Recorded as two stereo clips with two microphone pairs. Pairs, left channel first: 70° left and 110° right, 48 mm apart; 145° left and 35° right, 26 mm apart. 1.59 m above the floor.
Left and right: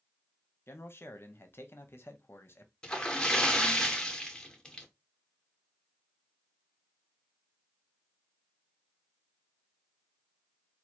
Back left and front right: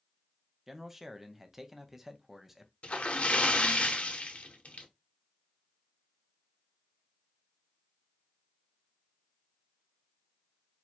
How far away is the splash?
About 0.7 m.